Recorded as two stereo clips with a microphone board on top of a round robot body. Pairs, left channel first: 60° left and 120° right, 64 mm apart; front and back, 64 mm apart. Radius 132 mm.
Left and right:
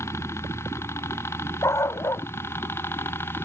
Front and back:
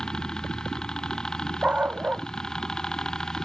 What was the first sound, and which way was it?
A helicopter, 75° left.